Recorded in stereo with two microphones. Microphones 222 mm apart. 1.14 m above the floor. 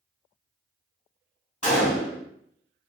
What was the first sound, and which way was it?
A gunshot, 30° left (ahead or behind).